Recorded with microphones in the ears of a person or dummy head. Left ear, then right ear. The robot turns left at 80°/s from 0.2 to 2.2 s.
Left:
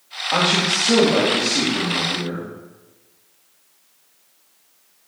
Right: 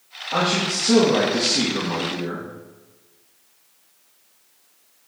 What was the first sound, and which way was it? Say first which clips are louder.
A man speaking: left 3 dB; 55° left.